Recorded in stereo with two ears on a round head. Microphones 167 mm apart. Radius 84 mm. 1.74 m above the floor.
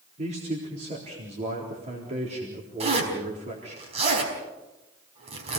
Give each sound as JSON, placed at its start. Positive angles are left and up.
{"t": 0.2, "sound": "a man speaking", "side_deg": -40, "distance_m": 4.0}
{"t": 2.8, "sound": "a zipper", "side_deg": -35, "distance_m": 4.5}